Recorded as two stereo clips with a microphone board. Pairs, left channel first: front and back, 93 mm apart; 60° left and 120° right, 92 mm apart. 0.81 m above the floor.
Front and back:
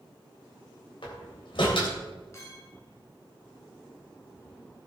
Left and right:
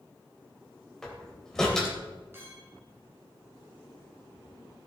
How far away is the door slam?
About 3 m.